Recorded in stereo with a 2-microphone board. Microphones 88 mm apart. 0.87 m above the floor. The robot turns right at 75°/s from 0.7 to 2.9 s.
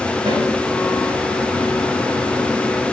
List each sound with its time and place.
0.3 s a snare drum: 75° right (ahead or behind), 5 m